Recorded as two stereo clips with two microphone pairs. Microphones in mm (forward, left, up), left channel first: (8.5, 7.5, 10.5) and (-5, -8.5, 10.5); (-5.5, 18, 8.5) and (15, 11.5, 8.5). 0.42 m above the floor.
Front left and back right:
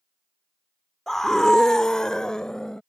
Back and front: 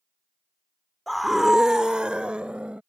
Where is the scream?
95° left; by 2.8 s 5° right.